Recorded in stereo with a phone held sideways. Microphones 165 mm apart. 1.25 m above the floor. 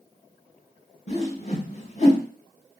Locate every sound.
1.1 s a whoosh: 45° left (ahead or behind), 1.0 m